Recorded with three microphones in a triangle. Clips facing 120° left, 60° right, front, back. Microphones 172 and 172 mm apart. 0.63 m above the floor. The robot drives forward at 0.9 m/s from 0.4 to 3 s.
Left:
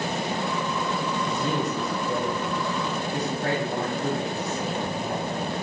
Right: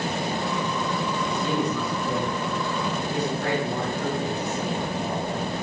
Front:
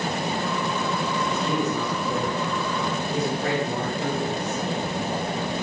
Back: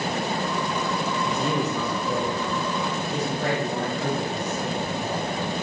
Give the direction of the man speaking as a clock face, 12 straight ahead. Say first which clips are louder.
Right 3 dB, even; 6 o'clock.